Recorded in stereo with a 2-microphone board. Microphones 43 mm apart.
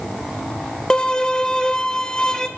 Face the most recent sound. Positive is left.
turn(degrees=15)  # may be behind; listen again after turning